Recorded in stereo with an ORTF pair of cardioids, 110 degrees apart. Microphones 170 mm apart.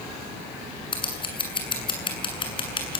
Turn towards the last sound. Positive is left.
turn(degrees=30)